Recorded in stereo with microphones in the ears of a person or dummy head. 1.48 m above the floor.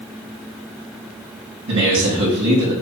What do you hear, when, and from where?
1.7 s a man speaking: 75° right (ahead or behind), 1.8 m